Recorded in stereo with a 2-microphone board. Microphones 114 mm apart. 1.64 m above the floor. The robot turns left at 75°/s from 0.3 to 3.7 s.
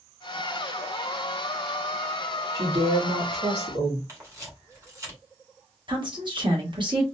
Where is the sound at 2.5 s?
35° right, 2.5 m; by 4.0 s 120° right, 2.5 m.